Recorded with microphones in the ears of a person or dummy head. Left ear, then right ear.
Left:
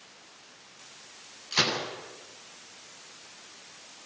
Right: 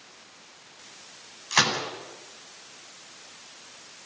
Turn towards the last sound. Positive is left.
turn(degrees=-45)  # may be behind; listen again after turning